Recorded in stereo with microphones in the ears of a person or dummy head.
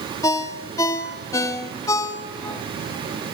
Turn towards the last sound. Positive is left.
turn(degrees=20)  # may be behind; listen again after turning